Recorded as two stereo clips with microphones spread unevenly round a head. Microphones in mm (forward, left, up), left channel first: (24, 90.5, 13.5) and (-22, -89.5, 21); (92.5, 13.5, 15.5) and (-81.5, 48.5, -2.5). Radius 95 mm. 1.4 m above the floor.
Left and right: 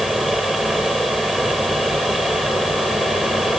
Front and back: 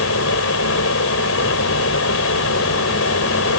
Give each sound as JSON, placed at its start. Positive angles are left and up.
{"t": 0.0, "sound": "a fan", "azimuth_deg": -15}